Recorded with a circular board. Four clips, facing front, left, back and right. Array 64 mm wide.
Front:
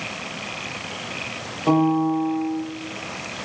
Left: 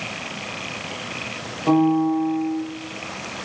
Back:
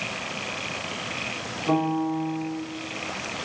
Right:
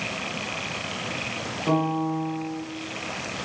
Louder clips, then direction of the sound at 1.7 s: Left 7 dB, front 6 dB; 25° left.